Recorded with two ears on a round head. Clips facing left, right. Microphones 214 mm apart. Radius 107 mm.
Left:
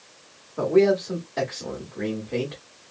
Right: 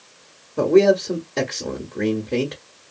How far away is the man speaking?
About 1.0 m.